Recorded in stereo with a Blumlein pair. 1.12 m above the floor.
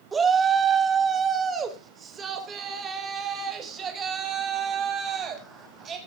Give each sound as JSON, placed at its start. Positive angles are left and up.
{"t": 0.1, "sound": "a shout", "azimuth_deg": -20, "distance_m": 2.5}